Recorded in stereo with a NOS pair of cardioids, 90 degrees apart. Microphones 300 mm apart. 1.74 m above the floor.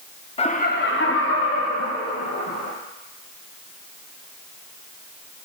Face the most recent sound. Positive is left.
turn(degrees=65)